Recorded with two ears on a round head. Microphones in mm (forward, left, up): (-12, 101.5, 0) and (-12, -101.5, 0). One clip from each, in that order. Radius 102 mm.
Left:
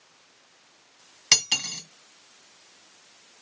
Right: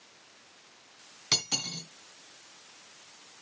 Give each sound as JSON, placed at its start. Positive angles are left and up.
{"t": 1.3, "sound": "cutlery clinking", "side_deg": 75, "distance_m": 2.5}